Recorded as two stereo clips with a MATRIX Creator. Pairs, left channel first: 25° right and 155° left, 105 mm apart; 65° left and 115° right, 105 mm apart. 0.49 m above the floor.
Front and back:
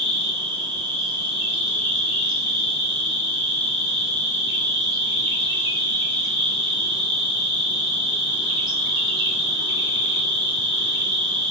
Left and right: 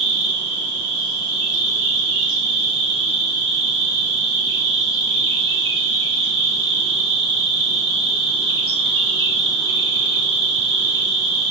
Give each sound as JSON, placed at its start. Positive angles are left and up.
{"t": 0.0, "sound": "an insect", "azimuth_deg": -150, "distance_m": 1.0}